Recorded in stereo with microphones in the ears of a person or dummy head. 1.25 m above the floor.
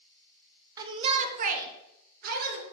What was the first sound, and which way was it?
A shout, 20° right (ahead or behind).